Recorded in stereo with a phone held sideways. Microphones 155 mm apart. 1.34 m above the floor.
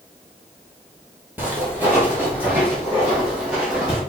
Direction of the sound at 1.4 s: 10° right (ahead or behind).